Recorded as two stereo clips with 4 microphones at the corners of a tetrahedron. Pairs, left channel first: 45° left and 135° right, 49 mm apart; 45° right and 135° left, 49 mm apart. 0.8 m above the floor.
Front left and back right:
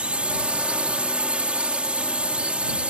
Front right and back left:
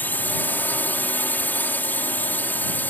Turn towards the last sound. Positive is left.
turn(degrees=-75)